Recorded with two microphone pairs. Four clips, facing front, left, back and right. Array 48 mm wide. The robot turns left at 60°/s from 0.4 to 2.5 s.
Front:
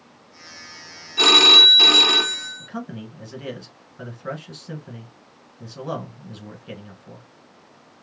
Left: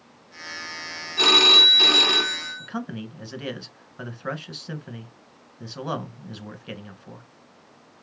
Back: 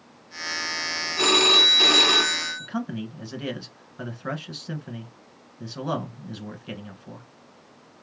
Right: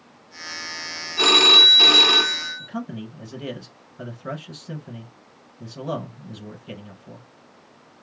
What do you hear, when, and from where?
1.2 s a phone ringing: 30° right, 0.6 m; by 2.7 s 110° right, 0.6 m
2.6 s a man speaking: 110° left, 1.3 m